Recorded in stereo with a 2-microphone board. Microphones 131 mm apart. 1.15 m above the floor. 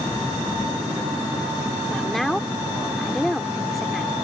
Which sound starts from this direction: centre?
A woman speaking, at 1.9 s.